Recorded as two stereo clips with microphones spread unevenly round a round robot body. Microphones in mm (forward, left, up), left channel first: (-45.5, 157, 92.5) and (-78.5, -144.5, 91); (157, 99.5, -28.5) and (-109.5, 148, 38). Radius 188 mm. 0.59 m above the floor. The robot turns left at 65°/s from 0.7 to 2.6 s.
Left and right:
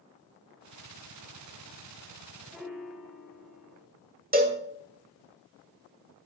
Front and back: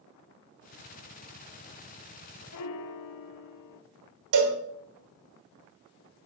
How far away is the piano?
About 0.8 m.